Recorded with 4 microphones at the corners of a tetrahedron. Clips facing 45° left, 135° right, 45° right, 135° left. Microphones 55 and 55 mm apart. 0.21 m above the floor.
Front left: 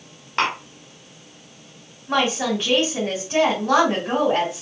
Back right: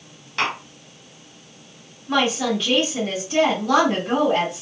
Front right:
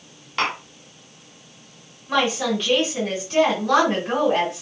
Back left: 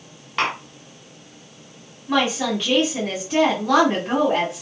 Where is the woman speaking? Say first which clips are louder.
Even, even; 65° left, 1.8 m.